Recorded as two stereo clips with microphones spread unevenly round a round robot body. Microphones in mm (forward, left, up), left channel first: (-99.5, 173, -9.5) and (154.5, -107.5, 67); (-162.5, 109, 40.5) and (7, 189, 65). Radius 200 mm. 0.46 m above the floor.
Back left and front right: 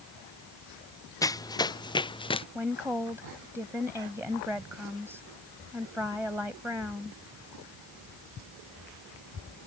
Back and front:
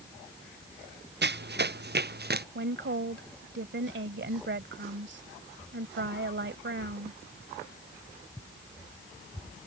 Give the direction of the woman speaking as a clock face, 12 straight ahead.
11 o'clock.